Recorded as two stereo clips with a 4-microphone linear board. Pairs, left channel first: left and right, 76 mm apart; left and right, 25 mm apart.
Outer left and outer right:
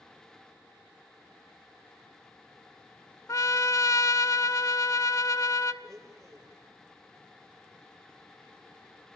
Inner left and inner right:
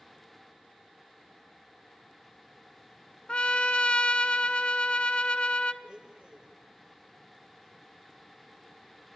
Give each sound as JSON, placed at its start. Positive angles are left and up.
{"t": 3.3, "sound": "a trumpet", "side_deg": 50, "distance_m": 0.7}
{"t": 5.8, "sound": "a blender", "side_deg": -40, "distance_m": 4.0}